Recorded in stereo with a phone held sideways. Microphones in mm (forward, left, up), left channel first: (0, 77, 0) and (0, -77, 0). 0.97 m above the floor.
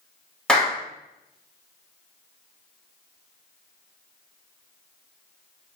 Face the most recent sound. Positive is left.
turn(degrees=5)  # may be behind; listen again after turning